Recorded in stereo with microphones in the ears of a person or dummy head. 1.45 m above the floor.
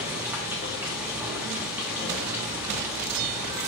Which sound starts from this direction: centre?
Running water, at 0.0 s.